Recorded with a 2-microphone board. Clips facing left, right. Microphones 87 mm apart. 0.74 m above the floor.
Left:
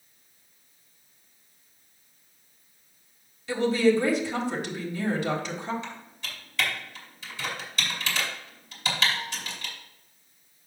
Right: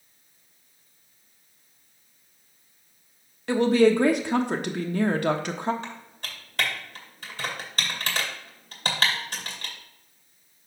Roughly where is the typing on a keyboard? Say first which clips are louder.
Right 1 dB; right.